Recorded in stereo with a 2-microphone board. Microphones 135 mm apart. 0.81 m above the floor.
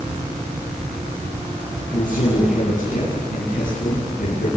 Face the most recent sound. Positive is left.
turn(degrees=85)